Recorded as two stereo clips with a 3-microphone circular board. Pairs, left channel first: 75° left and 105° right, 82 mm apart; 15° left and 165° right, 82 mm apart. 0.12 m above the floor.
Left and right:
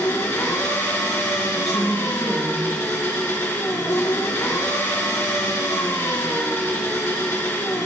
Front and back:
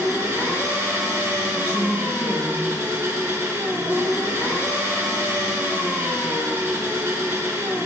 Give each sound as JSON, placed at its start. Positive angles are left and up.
{"t": 0.0, "sound": "an engine running", "azimuth_deg": 135, "distance_m": 1.5}
{"t": 1.6, "sound": "a woman speaking", "azimuth_deg": 160, "distance_m": 1.9}